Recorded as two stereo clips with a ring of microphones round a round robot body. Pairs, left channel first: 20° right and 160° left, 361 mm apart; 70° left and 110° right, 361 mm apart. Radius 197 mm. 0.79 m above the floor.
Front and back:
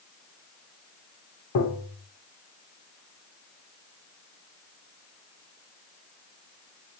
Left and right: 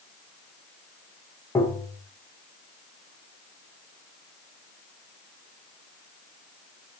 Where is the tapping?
10° right, 0.8 m.